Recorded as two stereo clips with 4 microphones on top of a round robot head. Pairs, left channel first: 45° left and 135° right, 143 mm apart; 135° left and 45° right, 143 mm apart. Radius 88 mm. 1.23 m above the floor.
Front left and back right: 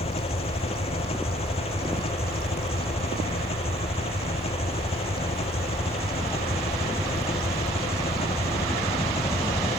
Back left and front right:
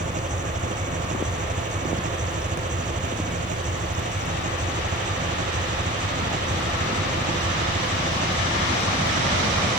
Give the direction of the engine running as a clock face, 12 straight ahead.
12 o'clock.